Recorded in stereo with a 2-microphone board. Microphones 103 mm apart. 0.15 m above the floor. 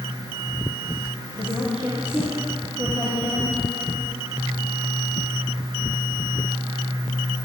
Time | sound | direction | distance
1.4 | a woman speaking | 10° right (ahead or behind) | 4 m